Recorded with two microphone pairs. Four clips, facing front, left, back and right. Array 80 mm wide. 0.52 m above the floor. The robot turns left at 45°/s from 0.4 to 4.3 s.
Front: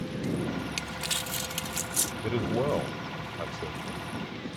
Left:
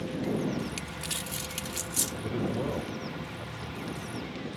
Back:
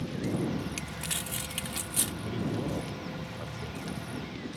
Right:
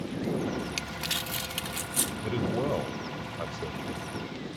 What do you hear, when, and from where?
0.8 s crumpling: 55° right; by 2.1 s 115° right
2.2 s a man speaking: straight ahead; by 4.2 s 85° right